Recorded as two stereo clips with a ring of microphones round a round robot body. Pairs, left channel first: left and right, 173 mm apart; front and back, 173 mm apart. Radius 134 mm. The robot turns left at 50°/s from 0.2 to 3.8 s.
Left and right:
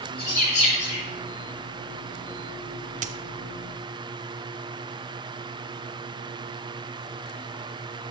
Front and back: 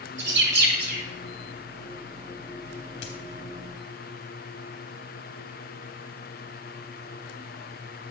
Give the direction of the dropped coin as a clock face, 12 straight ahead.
2 o'clock.